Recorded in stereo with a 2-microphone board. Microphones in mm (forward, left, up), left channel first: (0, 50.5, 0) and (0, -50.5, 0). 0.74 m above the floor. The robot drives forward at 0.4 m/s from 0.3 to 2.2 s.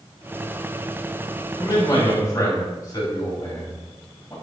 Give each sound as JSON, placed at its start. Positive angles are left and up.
{"t": 1.6, "sound": "a man speaking", "side_deg": 40, "distance_m": 4.0}